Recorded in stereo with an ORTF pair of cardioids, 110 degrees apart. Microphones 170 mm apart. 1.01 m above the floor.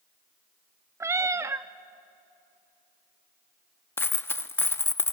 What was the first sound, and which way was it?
A cat meowing, 15° right.